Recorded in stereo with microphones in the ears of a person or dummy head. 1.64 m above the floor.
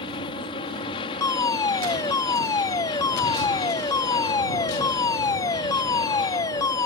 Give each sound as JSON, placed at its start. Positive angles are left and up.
{"t": 0.0, "sound": "an aircraft", "side_deg": 30}
{"t": 1.2, "sound": "a fire alarm", "side_deg": 20}